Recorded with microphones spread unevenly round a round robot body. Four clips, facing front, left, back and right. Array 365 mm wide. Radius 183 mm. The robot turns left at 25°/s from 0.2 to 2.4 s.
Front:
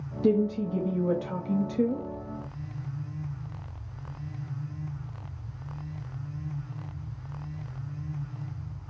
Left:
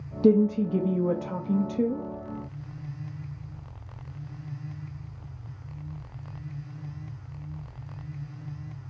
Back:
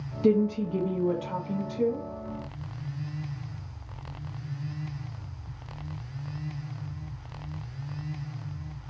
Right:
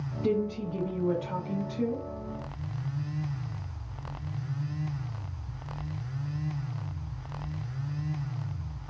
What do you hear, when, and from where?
0.2 s a woman speaking: 95° left, 0.7 m; by 2.1 s 50° left, 0.7 m